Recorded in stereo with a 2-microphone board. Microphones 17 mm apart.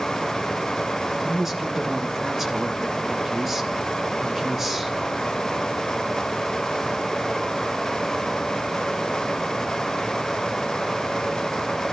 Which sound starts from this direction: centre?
A woman speaking, at 1.2 s.